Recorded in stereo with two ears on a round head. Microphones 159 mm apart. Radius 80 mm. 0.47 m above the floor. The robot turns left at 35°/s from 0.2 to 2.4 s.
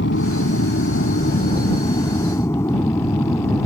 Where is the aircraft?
95° left; by 3.7 s 15° left.